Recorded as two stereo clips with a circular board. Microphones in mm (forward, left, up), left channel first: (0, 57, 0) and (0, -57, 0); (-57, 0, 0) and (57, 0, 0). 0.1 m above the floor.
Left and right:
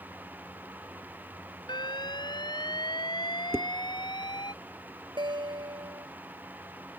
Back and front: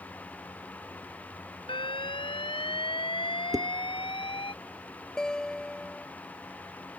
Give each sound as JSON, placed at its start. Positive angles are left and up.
{"t": 1.7, "sound": "an alarm", "azimuth_deg": 140}
{"t": 3.5, "sound": "dishes clattering", "azimuth_deg": -35}
{"t": 5.2, "sound": "a guitar", "azimuth_deg": -100}